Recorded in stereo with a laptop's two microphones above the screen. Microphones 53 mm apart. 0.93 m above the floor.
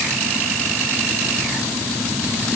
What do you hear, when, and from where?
Only background noise.